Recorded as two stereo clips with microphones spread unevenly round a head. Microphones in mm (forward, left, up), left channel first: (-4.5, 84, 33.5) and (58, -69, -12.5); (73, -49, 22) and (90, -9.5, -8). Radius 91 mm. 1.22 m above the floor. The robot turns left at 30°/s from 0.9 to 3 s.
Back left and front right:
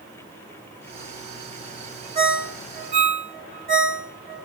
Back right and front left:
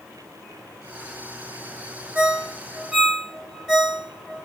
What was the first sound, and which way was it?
A ringtone, 5° right.